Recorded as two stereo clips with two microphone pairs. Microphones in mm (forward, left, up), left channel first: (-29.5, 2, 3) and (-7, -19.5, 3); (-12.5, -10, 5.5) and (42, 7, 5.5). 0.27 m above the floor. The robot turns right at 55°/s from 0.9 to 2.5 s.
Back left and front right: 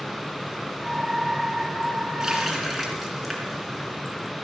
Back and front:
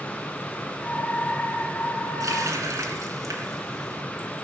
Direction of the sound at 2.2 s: 30° left.